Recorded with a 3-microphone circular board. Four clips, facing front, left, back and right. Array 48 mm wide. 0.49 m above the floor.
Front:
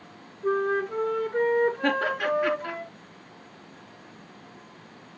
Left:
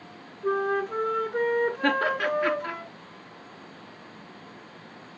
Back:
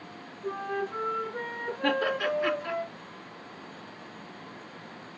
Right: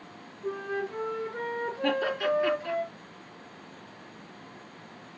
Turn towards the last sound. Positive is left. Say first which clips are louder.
# left 3 dB, front 2 dB
turn(degrees=80)